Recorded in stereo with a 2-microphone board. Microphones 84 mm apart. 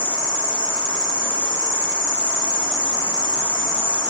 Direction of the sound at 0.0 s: 20° right (ahead or behind).